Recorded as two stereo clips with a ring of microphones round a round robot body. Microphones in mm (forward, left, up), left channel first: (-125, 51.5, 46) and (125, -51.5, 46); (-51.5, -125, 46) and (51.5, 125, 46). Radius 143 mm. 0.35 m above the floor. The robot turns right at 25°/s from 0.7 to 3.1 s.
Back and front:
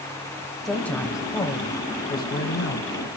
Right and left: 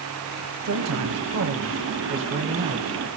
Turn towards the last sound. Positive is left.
turn(degrees=130)